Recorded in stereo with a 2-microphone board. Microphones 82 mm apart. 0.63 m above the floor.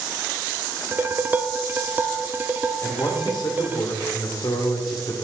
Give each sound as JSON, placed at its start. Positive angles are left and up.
{"t": 0.9, "sound": "dishes clattering", "side_deg": -25, "distance_m": 0.5}
{"t": 2.8, "sound": "a man speaking", "side_deg": 60, "distance_m": 2.0}